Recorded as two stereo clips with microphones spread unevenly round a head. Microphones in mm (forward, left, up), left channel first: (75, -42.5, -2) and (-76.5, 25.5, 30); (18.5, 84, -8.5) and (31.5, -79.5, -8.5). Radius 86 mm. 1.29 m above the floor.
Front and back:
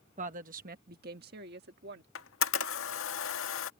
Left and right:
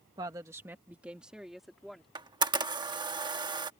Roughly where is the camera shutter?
Ahead right.